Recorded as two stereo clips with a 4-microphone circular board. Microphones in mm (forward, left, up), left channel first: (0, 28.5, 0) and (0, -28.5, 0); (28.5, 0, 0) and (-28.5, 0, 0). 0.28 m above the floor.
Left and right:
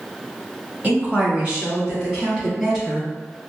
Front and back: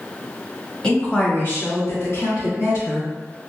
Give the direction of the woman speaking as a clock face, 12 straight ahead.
2 o'clock.